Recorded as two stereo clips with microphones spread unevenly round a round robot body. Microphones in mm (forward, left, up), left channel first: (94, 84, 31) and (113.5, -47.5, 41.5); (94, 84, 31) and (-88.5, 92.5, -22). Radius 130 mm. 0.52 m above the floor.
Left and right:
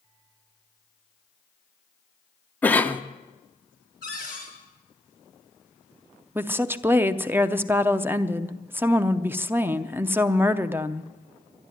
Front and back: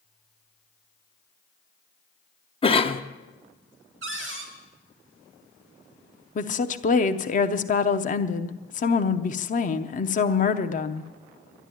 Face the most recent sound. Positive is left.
turn(degrees=-15)